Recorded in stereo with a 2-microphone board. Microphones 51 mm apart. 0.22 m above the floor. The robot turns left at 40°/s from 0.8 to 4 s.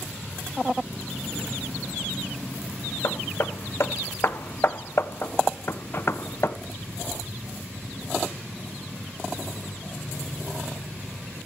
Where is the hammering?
60° left (ahead or behind), 0.5 m; by 6.6 s 55° left (ahead or behind), 0.5 m.